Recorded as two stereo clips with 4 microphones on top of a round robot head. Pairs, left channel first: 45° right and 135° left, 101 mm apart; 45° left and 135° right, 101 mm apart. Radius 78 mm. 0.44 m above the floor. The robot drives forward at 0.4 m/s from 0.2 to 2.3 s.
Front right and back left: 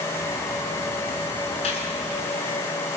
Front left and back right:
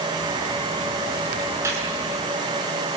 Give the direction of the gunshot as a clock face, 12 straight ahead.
2 o'clock.